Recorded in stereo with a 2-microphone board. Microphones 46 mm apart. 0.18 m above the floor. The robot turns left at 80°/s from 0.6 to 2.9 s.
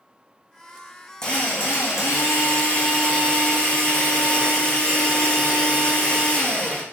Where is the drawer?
I don't hear a drawer.